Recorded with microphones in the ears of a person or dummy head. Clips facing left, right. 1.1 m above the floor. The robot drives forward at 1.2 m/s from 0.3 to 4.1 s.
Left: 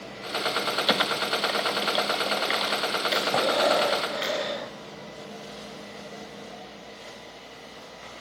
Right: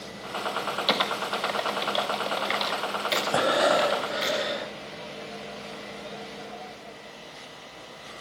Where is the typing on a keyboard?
10° left (ahead or behind), 1.3 m; by 4.3 s centre (ahead or behind), 5 m.